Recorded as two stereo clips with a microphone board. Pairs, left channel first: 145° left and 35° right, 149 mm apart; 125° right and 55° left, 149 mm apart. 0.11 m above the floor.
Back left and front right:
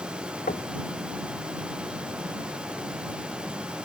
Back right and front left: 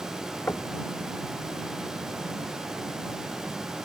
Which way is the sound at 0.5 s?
160° left.